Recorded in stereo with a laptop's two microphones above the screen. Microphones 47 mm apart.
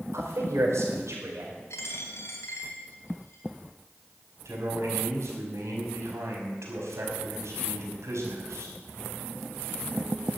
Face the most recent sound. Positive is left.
turn(degrees=-85)